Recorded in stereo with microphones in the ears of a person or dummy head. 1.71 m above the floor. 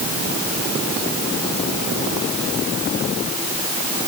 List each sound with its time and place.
Only background noise.